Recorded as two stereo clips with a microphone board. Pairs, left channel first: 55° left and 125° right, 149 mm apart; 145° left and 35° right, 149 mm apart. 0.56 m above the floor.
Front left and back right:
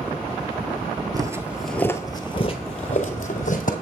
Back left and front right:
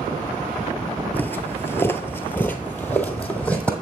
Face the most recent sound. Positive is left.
turn(degrees=65)